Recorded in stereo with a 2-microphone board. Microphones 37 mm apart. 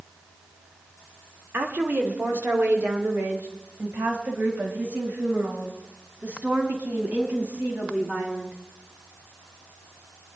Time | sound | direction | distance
1.5 | a woman speaking | 65° right (ahead or behind) | 2 m